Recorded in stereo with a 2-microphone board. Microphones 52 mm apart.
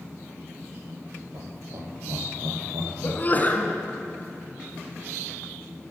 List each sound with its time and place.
1.3 s laughter: 70° right (ahead or behind), 3.5 m
3.0 s a sneeze: 35° left (ahead or behind), 1.7 m